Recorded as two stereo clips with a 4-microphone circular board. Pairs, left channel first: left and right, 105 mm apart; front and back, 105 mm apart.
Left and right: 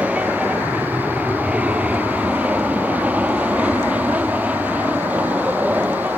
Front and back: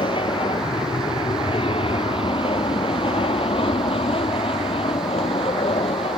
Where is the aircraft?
15° right.